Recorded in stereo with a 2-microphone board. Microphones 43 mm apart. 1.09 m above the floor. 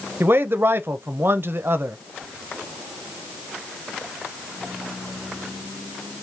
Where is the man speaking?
60° right (ahead or behind), 0.5 m.